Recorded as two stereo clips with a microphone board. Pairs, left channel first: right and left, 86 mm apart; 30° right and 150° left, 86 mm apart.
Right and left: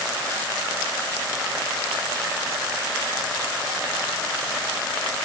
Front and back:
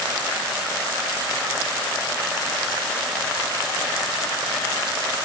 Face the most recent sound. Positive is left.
No sound to turn to.